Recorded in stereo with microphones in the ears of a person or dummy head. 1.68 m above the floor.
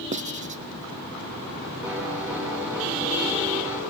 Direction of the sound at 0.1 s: 35° right (ahead or behind).